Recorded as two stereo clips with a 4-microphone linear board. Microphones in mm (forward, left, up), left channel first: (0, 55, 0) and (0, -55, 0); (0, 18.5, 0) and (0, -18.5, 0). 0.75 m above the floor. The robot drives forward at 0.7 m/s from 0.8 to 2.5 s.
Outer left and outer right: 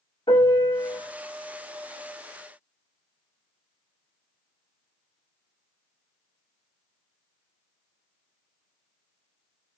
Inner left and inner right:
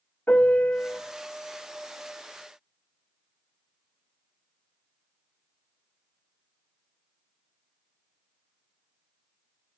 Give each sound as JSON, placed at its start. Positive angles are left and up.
{"t": 0.3, "sound": "a piano", "side_deg": 55, "distance_m": 2.0}